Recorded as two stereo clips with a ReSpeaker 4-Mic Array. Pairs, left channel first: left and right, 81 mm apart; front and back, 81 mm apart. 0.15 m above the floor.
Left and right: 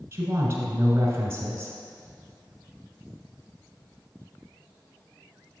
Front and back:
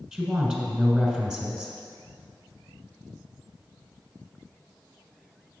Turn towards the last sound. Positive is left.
turn(degrees=-110)